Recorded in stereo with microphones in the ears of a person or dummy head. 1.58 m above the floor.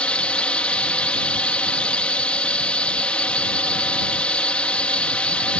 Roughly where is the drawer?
No drawer in this recording.